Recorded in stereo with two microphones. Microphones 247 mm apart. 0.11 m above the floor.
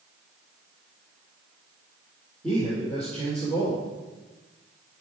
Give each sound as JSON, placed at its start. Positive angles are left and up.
{"t": 2.4, "sound": "a man speaking", "side_deg": 5, "distance_m": 3.5}